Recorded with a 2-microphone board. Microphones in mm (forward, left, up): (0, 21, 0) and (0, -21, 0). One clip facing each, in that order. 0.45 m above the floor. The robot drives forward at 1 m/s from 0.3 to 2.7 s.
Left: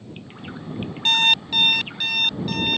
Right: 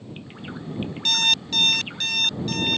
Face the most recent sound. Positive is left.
turn(degrees=10)  # may be behind; listen again after turning